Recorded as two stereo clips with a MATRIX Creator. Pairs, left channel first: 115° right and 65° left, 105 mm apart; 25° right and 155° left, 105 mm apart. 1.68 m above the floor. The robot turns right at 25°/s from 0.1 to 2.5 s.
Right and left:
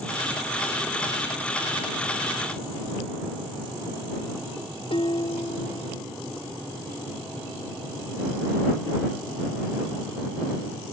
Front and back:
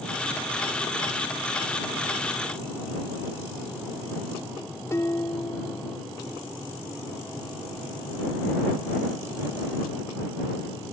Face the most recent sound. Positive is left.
turn(degrees=-85)